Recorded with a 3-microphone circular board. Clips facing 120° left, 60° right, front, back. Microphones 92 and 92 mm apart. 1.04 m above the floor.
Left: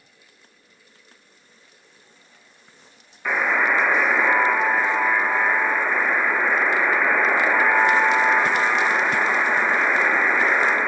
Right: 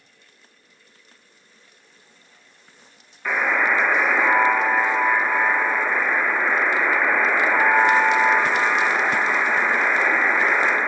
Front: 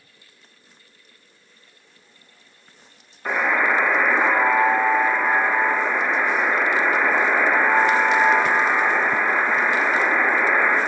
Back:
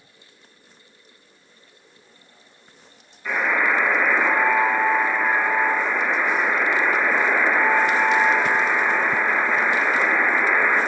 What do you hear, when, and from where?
3.2 s a buzzer: 35° left, 0.8 m